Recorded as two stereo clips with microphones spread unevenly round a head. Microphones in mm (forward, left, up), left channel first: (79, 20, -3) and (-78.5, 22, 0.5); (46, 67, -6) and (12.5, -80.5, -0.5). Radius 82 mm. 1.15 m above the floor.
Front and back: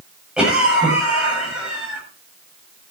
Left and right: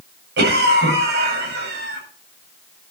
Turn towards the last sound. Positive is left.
turn(degrees=-95)